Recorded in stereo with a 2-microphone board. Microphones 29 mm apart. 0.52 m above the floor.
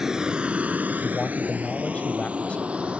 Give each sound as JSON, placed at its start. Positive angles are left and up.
{"t": 0.0, "sound": "a vehicle", "side_deg": -20}
{"t": 1.0, "sound": "a man speaking", "side_deg": 55}